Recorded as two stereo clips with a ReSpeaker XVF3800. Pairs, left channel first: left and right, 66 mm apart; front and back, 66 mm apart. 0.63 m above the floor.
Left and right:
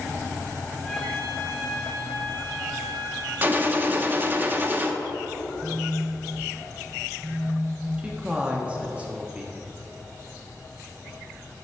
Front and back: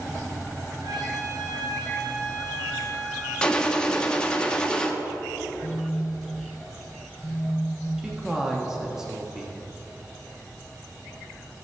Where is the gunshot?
65° right, 0.8 m.